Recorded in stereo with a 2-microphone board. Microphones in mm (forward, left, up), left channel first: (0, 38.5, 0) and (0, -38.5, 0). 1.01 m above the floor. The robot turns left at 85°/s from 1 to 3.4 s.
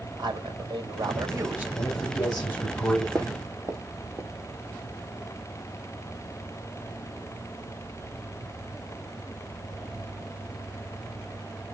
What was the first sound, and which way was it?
A man speaking, 105° right.